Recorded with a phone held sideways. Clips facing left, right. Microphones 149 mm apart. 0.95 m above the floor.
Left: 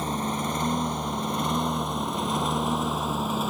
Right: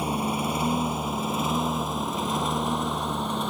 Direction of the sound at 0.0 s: 10° right (ahead or behind).